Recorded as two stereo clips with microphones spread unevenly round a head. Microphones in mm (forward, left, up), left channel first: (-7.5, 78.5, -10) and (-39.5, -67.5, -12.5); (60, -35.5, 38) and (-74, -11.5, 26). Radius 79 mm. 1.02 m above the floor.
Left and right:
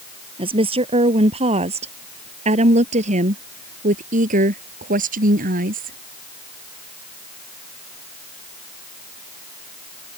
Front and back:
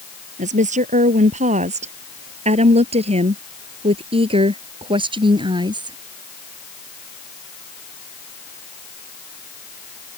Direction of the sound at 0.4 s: 155° right.